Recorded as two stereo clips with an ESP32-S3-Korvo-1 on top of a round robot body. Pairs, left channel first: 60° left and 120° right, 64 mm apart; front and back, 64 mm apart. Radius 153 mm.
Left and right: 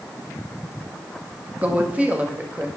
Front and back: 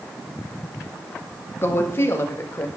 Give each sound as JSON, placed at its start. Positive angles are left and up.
{"t": 1.6, "sound": "a woman speaking", "azimuth_deg": -55, "distance_m": 1.0}